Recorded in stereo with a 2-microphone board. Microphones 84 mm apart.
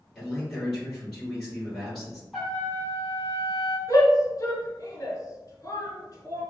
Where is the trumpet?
Centre (ahead or behind), 1.6 m.